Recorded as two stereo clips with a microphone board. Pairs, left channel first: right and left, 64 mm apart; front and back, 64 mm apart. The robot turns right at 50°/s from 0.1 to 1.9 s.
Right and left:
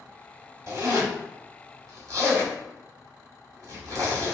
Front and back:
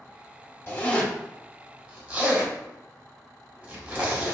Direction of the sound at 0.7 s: 50° left.